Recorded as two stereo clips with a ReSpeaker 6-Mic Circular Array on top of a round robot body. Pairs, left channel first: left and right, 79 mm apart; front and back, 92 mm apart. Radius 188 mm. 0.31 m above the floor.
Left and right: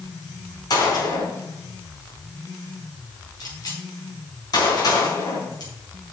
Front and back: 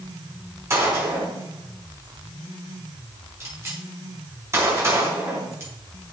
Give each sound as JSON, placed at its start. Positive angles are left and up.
{"t": 0.7, "sound": "a gunshot", "azimuth_deg": 120, "distance_m": 5.0}